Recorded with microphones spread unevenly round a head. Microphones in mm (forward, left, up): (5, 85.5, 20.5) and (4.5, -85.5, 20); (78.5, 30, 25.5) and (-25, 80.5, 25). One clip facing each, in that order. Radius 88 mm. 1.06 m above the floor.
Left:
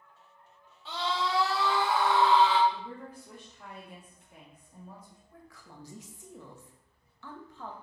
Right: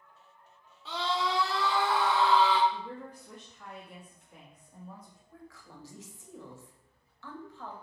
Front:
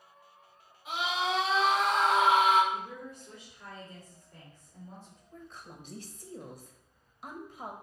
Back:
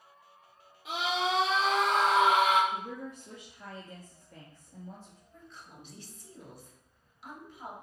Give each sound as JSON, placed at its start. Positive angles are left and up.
{"t": 0.8, "sound": "a scream", "azimuth_deg": 180, "distance_m": 3.5}
{"t": 2.7, "sound": "a woman speaking", "azimuth_deg": 170, "distance_m": 1.5}
{"t": 5.3, "sound": "a woman speaking", "azimuth_deg": 15, "distance_m": 1.6}